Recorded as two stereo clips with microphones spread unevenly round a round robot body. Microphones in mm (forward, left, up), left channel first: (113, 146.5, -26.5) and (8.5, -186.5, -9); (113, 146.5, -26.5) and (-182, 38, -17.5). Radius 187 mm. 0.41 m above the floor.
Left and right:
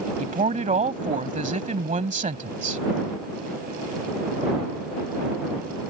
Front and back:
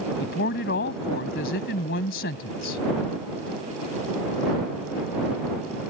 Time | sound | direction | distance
0.2 | a woman speaking | 40° right | ?